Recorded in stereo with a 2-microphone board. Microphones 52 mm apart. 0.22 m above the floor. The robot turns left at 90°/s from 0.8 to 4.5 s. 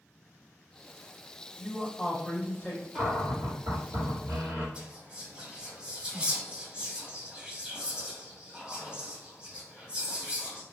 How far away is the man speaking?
About 1.5 m.